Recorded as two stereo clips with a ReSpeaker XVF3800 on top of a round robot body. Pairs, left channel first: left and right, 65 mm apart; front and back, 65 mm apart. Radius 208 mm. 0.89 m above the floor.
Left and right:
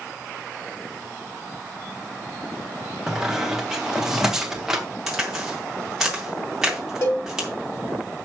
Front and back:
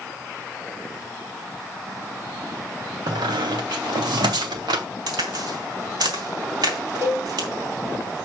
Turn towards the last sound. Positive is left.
turn(degrees=135)